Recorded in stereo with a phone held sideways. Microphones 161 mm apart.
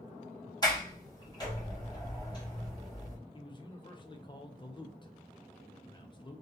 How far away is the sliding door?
About 1.2 m.